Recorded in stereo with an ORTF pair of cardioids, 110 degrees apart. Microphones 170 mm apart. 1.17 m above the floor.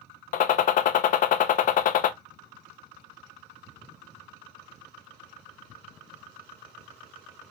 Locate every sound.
0.3 s a gunshot: 55° left, 0.6 m